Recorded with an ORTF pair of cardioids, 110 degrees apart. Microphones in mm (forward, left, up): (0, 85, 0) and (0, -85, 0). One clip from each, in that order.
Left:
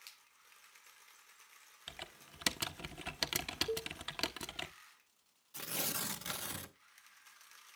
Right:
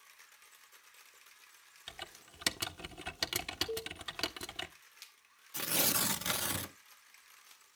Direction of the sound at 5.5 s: 30° right.